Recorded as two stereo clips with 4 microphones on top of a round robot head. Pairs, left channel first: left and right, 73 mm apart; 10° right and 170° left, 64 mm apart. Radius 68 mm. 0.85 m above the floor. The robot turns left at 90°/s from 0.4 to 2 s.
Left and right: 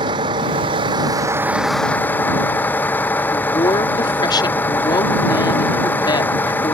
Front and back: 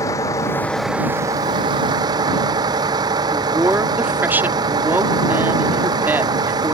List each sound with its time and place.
0.0 s a vehicle: 60° right; by 6.7 s 155° left
3.3 s a woman speaking: 110° left